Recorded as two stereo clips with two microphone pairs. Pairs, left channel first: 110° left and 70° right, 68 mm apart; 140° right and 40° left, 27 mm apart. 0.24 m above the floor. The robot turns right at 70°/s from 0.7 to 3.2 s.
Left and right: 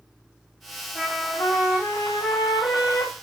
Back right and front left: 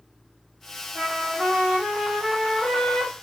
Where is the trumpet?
15° left, 2 m; by 3.1 s 165° left, 2 m.